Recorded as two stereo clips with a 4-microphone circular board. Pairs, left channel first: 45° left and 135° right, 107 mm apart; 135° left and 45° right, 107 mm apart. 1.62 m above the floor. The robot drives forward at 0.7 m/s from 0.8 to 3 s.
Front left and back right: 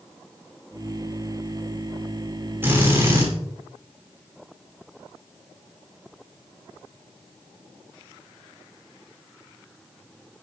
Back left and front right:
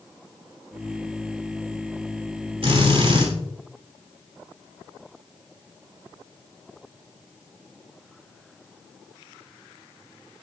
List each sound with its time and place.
2.6 s a drill: 65° right, 3.5 m; by 3.3 s 70° right, 3.5 m